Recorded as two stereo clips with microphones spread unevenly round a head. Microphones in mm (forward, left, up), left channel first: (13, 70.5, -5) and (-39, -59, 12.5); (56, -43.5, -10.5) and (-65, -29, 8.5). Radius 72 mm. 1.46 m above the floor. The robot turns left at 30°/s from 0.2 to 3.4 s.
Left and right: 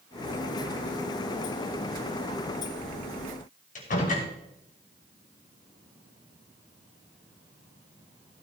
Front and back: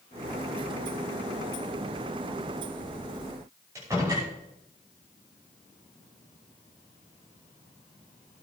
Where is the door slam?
100° left, 5.5 m.